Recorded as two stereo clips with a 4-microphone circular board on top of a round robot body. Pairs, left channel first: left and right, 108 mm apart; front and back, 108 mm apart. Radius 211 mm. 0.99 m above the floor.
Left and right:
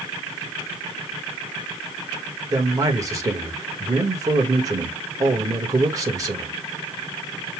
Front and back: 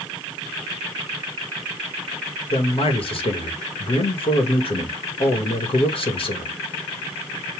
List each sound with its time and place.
2.5 s a man speaking: 30° right, 1.8 m